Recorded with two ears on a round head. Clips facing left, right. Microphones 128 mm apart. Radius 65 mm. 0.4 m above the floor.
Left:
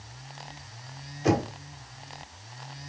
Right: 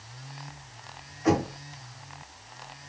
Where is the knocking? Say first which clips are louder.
Right 1 dB; 35° left (ahead or behind), 1.3 m.